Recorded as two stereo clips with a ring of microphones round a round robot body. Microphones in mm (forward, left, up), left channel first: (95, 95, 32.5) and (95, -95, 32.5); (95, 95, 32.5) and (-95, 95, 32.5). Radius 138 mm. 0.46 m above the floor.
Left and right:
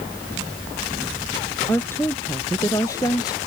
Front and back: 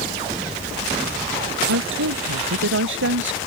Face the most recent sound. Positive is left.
turn(degrees=165)